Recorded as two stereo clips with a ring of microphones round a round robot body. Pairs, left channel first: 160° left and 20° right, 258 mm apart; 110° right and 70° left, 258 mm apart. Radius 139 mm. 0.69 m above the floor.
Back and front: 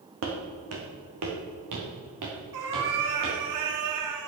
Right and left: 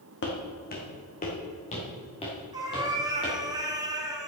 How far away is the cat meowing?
About 1.6 m.